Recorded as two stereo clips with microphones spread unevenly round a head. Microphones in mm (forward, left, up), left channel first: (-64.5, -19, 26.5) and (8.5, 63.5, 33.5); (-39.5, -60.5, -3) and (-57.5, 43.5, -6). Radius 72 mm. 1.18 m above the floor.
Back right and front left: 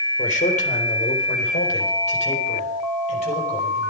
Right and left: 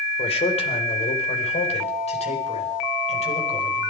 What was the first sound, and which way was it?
A man speaking, 110° right.